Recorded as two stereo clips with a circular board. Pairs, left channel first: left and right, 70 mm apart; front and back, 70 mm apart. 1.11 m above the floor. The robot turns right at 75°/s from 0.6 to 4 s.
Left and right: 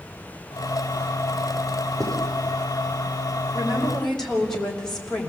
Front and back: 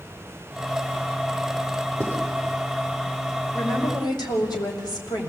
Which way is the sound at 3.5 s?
30° right.